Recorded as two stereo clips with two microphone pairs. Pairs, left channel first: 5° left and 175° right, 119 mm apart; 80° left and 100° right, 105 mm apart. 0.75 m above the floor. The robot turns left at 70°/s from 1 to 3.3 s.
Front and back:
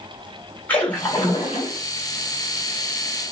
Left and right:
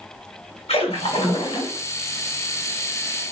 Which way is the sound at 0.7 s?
80° left.